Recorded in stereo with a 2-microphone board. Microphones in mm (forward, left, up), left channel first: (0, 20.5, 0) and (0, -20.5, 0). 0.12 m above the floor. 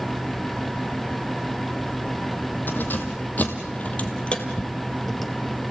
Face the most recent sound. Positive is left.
turn(degrees=0)  # may be behind; listen again after turning